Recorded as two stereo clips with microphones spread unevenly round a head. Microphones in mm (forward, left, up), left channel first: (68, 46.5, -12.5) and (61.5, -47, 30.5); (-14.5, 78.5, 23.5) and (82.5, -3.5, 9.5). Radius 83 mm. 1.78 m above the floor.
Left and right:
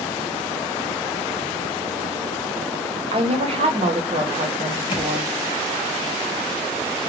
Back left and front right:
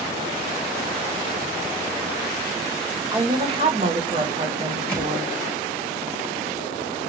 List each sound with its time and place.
3.1 s a woman speaking: 115° right, 0.8 m; by 5.3 s 95° right, 1.9 m
4.9 s a thud: 110° left, 1.4 m